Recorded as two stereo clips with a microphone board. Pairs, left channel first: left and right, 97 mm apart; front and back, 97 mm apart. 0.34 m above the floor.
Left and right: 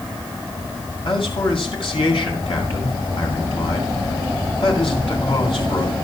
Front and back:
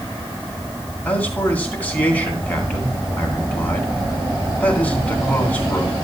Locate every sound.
1.1 s a man speaking: 70° left, 3 m